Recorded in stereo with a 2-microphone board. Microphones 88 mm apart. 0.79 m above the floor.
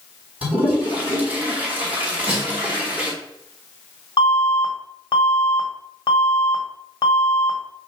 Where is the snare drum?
10° right (ahead or behind), 4 m.